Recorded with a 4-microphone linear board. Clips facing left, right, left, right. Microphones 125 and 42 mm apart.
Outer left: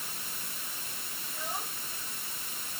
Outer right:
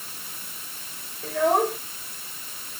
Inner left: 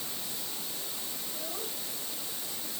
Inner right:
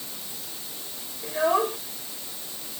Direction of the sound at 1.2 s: 80° right.